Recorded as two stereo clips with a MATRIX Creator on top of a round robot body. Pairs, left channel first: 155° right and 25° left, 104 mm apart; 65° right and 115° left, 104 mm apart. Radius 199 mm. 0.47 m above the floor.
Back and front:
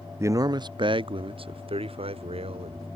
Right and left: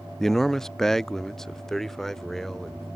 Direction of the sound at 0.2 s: 15° left.